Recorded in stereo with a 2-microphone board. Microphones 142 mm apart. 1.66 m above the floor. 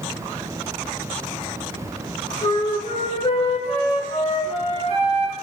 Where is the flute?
40° left (ahead or behind), 0.7 m.